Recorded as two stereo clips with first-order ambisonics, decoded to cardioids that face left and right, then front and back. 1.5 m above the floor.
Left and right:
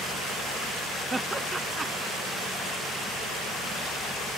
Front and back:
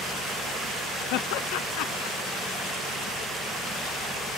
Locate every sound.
1.1 s laughter: 10° right